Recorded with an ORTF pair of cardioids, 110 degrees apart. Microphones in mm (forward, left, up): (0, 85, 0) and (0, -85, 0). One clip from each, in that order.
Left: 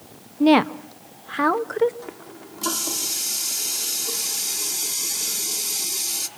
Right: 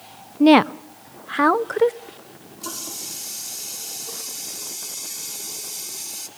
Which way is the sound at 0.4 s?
15° right.